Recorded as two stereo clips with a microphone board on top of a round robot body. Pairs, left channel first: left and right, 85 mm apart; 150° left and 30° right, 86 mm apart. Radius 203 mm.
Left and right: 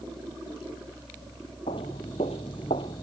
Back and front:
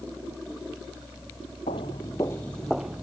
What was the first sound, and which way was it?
Footsteps, 125° left.